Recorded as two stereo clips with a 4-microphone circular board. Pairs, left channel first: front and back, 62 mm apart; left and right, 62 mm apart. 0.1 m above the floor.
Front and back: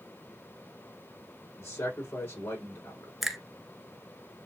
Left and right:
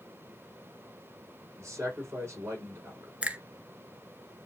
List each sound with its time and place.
1.6 s a man speaking: 45° right, 4 m
3.2 s a finger snap: 95° right, 0.9 m